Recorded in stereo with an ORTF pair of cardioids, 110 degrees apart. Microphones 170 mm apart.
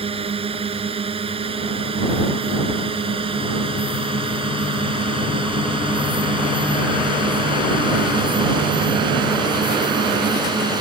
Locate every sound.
0.0 s a drone: 35° right; by 10.8 s 25° right